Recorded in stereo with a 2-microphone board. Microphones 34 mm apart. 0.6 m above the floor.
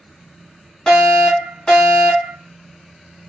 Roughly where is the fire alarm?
Left.